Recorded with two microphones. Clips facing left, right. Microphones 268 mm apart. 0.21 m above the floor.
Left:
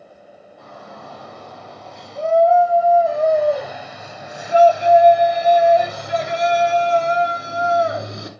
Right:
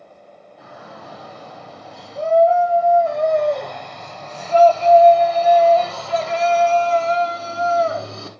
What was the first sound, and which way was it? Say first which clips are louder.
A shout: left 1 dB; 5° right (ahead or behind).